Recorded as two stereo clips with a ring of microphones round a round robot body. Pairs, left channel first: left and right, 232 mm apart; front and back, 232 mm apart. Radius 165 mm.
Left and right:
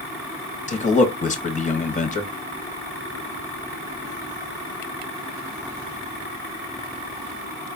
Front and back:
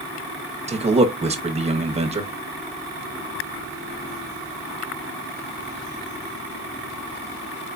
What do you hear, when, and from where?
0.7 s a man speaking: 130° left, 1.2 m